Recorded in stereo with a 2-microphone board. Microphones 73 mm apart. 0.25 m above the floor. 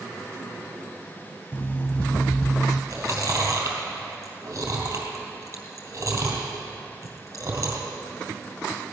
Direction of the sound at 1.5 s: 25° left (ahead or behind).